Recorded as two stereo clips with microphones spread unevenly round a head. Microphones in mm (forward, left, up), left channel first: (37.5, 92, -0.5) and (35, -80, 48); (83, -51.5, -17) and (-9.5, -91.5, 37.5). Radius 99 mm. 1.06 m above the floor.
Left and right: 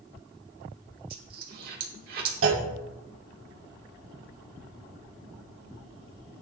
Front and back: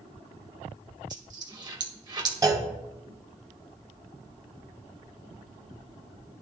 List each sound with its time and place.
1.1 s a dropped coin: 125° right, 1.7 m
2.4 s a clunk: 105° right, 1.7 m